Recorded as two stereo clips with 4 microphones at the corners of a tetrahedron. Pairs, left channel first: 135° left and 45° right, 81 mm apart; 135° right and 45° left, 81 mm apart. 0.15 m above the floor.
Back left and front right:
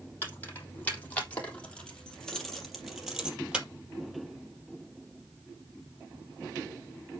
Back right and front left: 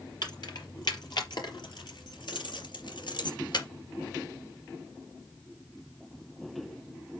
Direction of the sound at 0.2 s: 165° right.